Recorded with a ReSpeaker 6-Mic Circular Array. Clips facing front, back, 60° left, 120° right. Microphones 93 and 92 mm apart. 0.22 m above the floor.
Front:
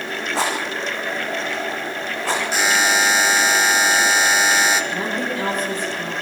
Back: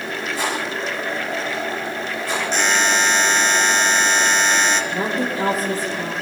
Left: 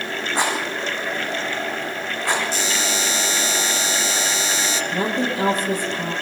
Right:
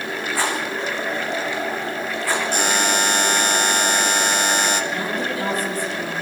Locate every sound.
0.3 s a rattle: 10° right, 6.5 m
2.5 s a buzzer: 85° right, 1.3 m
4.9 s a woman speaking: 95° left, 7.5 m